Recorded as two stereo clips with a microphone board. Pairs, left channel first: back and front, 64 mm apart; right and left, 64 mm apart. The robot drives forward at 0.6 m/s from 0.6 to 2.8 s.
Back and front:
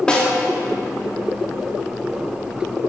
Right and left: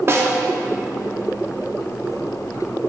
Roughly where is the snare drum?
Left.